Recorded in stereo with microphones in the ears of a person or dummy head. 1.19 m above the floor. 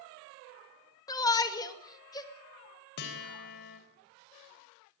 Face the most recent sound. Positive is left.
turn(degrees=60)  # may be behind; listen again after turning